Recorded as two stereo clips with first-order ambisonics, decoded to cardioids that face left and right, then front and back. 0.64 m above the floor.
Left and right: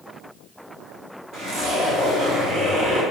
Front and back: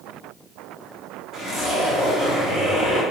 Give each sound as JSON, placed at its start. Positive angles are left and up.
{"t": 1.3, "sound": "a zipper", "azimuth_deg": -70, "distance_m": 1.8}